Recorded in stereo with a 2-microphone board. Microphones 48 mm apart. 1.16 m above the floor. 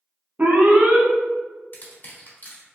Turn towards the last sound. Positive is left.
turn(degrees=40)  # may be behind; listen again after turning